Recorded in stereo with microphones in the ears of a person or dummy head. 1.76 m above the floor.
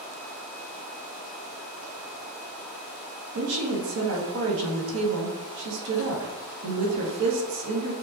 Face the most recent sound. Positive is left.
turn(degrees=-65)  # may be behind; listen again after turning